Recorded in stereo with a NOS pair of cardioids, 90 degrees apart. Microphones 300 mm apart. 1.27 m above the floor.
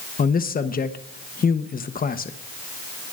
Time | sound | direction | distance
0.2 | a man speaking | 30° left | 1.0 m